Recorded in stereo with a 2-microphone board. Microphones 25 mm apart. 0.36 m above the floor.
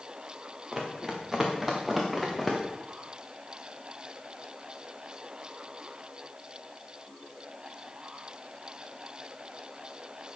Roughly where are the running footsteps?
Right.